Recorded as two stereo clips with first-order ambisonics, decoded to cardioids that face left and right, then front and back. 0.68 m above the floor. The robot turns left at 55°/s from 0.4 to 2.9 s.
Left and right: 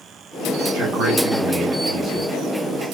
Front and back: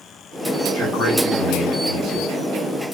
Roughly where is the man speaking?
Right.